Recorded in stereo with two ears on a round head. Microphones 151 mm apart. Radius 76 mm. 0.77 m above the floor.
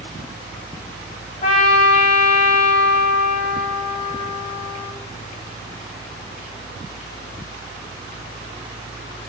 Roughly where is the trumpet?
Left.